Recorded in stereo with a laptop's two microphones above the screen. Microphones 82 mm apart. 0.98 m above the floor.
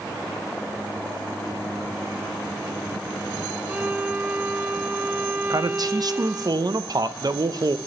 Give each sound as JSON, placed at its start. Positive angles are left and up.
{"t": 3.7, "sound": "a violin", "side_deg": -25, "distance_m": 0.9}
{"t": 5.5, "sound": "a man speaking", "side_deg": -55, "distance_m": 0.5}